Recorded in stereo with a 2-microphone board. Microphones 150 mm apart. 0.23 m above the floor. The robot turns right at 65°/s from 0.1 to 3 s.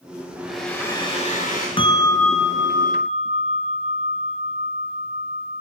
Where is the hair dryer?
15° right, 6.5 m; by 1.7 s 70° left, 6.5 m.